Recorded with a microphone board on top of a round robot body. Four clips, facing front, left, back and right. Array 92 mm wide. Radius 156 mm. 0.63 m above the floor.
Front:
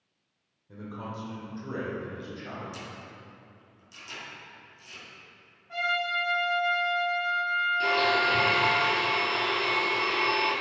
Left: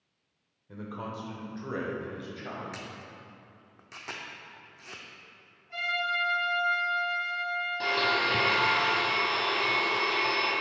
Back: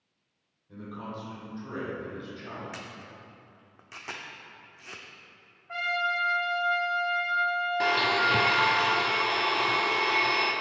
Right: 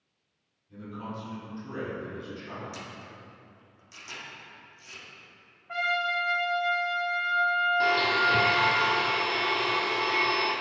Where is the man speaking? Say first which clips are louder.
Left 1 dB, even; 80° left, 2.5 m; by 2.6 s 85° left, 4 m.